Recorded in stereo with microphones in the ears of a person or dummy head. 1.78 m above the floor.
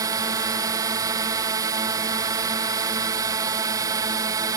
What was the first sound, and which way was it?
A drone, 20° right (ahead or behind).